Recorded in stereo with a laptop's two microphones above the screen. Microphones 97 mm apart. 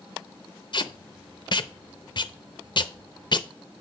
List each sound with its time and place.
0.7 s tape being pulled: 50° left (ahead or behind), 0.6 m